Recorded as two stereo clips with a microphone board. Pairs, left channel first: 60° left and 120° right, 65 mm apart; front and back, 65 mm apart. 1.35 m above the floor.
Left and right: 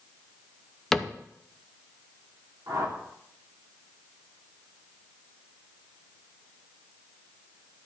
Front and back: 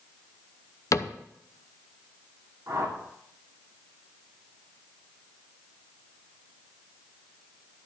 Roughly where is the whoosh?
Behind right.